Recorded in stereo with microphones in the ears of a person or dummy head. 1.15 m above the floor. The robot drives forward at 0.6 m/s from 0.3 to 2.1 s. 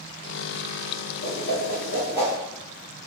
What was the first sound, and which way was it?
A whoosh, 60° left (ahead or behind).